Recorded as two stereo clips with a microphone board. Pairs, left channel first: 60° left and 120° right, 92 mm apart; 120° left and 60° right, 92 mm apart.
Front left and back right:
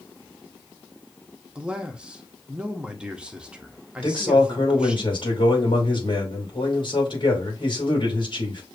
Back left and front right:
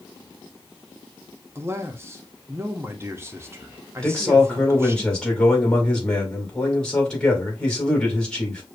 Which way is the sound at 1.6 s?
55° right.